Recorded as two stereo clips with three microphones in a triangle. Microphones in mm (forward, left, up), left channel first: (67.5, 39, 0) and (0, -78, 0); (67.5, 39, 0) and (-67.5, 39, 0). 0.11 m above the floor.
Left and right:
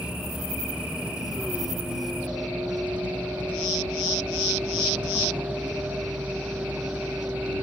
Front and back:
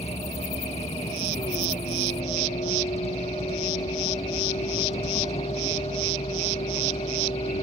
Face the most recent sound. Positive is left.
turn(degrees=-40)